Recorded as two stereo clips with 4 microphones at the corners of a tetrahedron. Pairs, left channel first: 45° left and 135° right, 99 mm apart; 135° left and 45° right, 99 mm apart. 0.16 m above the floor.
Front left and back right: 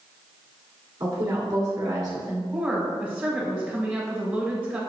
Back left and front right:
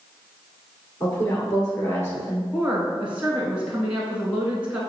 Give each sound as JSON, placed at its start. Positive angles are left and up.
{"t": 1.0, "sound": "a woman speaking", "azimuth_deg": -165, "distance_m": 1.7}
{"t": 2.5, "sound": "a woman speaking", "azimuth_deg": -95, "distance_m": 1.1}